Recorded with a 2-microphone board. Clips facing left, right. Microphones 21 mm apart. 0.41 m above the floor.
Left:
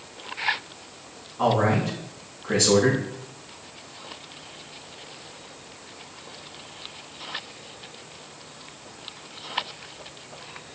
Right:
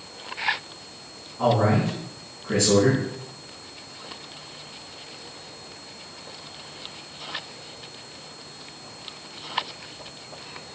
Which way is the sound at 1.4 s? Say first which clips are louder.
Right 1 dB; 25° left (ahead or behind).